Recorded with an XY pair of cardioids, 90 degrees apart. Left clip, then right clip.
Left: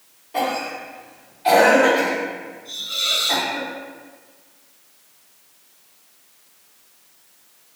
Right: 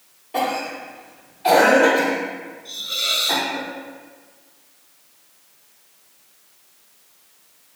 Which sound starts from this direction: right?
A cough, at 0.3 s.